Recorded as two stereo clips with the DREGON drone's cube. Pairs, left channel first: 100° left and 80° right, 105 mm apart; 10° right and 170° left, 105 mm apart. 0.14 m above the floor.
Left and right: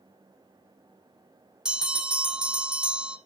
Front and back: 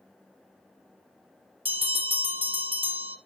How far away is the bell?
About 1.9 m.